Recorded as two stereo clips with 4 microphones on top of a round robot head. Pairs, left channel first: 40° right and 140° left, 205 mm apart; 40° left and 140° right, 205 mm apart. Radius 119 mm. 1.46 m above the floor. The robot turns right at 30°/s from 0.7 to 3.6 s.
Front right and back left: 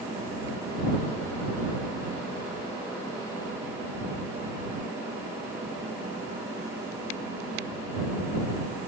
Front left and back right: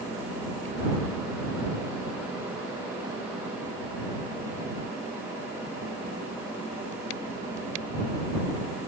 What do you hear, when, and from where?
Only background noise.